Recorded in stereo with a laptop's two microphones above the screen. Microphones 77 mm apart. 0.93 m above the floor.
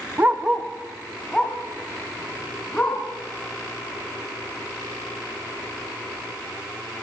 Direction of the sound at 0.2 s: 30° right (ahead or behind).